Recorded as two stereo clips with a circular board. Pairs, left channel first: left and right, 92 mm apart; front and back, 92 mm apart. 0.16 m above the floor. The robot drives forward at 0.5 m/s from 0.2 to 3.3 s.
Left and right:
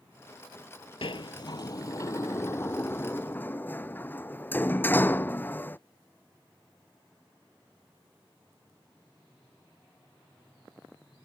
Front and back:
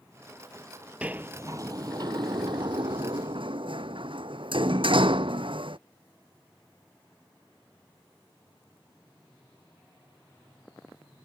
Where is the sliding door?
105° left; by 5.8 s 160° left.